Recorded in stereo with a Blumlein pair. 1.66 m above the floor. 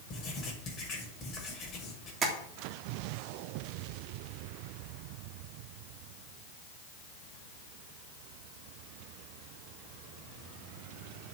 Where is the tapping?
25° right, 3.5 m.